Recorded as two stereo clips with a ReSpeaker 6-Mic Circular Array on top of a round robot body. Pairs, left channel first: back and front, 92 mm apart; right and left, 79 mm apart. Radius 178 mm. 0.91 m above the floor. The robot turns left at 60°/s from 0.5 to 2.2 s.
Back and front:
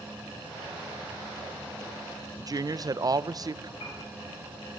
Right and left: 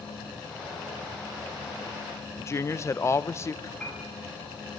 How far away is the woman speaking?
About 0.9 m.